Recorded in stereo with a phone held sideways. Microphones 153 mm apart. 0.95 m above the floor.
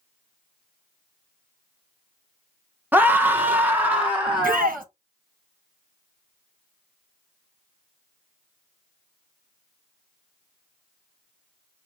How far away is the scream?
About 0.9 m.